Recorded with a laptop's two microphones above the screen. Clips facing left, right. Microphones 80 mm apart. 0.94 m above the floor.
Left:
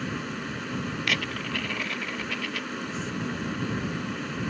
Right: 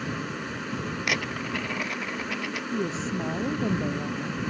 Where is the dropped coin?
15° right (ahead or behind).